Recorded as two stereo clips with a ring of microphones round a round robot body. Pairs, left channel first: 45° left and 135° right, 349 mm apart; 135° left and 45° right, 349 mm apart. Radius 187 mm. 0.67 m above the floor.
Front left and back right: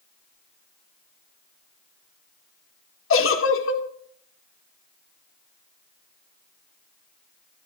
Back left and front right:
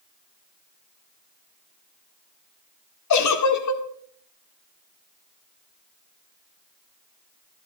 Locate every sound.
3.1 s a giggle: 95° left, 1.8 m